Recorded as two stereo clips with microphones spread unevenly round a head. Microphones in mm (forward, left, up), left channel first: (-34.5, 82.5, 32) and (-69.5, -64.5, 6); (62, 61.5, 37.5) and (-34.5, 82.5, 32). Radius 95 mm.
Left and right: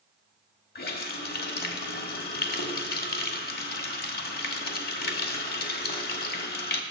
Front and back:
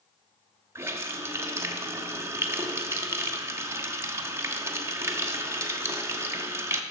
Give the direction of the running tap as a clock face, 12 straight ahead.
9 o'clock.